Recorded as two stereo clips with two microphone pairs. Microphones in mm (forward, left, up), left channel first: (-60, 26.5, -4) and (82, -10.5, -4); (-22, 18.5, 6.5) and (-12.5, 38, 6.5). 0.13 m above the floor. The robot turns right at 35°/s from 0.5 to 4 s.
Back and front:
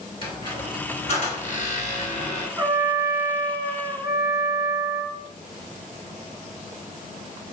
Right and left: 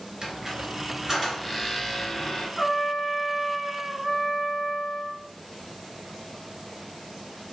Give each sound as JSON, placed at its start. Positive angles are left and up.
{"t": 0.2, "sound": "a squeak", "azimuth_deg": 120, "distance_m": 1.1}
{"t": 2.6, "sound": "a trumpet", "azimuth_deg": -40, "distance_m": 0.6}